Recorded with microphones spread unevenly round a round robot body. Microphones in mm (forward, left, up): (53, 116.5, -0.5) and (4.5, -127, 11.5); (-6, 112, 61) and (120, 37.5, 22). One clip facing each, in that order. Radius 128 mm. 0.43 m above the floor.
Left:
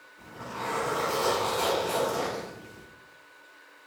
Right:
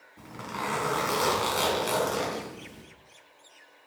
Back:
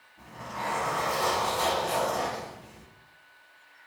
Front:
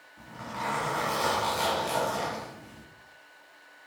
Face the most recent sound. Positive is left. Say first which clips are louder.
# right 1 dB, even
turn(degrees=-90)